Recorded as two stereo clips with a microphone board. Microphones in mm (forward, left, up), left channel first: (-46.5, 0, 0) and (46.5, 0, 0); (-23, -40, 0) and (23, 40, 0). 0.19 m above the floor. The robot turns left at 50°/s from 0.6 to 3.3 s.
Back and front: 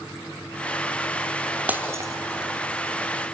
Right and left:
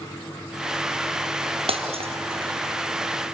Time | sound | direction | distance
1.7 | breaking glass | 75° left | 1.6 m